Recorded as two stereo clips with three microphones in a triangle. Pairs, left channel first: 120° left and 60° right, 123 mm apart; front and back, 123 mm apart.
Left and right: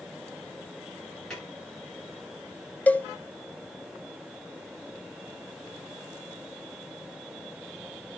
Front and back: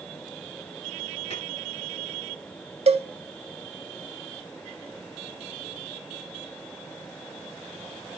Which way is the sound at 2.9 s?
165° right.